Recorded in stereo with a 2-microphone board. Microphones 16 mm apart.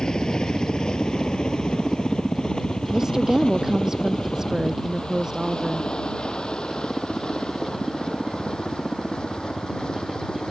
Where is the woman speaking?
35° right (ahead or behind).